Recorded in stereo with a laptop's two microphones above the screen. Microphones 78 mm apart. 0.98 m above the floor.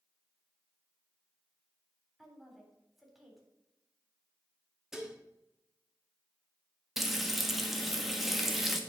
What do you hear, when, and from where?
2.2 s a woman speaking: 5° right (ahead or behind), 4 m
4.9 s dishes clattering: 5° right (ahead or behind), 1.1 m
7.0 s frying: 5° right (ahead or behind), 1.5 m